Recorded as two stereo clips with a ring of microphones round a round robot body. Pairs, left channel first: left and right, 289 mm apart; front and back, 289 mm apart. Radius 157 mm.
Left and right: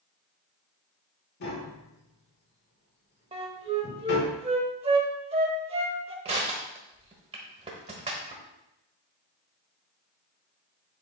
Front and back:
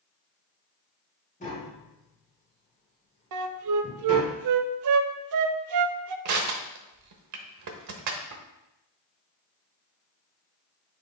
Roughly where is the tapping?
Ahead left.